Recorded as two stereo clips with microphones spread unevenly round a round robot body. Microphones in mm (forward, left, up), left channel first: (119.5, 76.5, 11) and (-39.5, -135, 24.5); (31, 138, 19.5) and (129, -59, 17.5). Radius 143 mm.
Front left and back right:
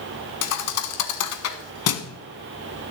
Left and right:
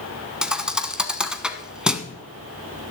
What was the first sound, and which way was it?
A thud, 25° left.